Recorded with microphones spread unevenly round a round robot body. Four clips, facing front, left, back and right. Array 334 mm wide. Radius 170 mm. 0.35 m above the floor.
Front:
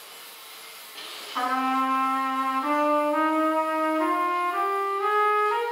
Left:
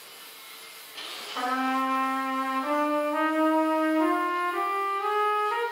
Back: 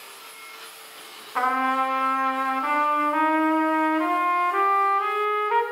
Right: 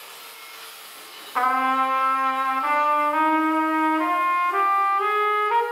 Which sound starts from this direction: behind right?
A trumpet, at 1.4 s.